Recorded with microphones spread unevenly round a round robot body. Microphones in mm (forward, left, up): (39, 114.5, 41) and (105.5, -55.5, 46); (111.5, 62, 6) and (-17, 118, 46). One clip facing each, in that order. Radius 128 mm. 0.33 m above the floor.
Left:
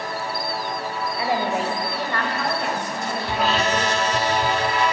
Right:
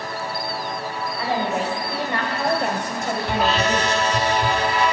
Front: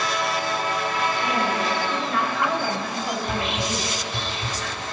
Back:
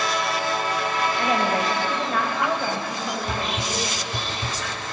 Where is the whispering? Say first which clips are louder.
Right 1 dB, front 1 dB; 160° right, 1.6 m.